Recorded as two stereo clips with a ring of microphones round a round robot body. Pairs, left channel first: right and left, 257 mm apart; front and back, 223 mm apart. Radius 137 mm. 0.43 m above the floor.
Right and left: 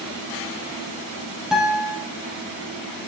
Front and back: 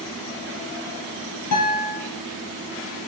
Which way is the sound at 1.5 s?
Straight ahead.